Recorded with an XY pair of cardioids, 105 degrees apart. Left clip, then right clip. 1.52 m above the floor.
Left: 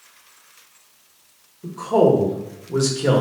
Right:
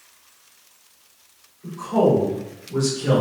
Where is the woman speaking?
65° left, 1.1 m.